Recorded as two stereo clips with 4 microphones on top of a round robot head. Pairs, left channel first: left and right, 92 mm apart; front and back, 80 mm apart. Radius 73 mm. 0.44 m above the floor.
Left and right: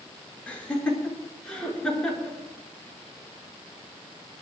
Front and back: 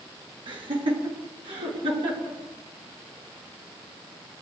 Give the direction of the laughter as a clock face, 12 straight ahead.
6 o'clock.